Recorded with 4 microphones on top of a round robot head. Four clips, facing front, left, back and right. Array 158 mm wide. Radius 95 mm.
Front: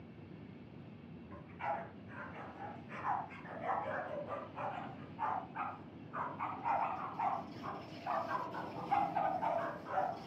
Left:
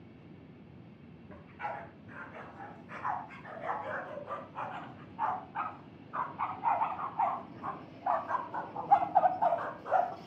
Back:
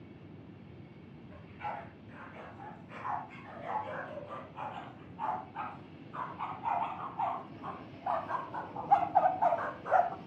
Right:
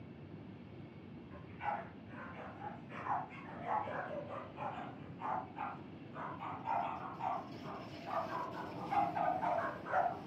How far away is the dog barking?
About 7 m.